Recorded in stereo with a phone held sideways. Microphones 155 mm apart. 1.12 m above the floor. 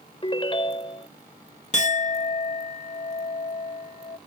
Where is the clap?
No clap in this recording.